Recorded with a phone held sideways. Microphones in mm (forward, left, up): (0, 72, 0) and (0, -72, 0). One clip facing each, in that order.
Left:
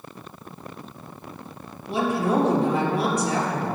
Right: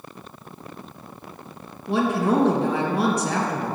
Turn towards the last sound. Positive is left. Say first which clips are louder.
# right 2 dB
turn(degrees=-70)  # may be behind; listen again after turning